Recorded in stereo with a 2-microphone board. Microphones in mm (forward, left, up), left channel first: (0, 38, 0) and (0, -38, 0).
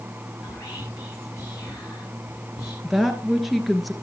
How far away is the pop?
No pop in this recording.